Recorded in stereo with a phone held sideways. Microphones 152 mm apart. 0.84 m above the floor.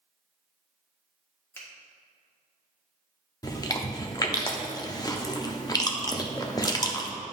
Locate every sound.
1.6 s a finger snap: 15° left (ahead or behind), 1.5 m
3.4 s chewing: 30° left (ahead or behind), 0.6 m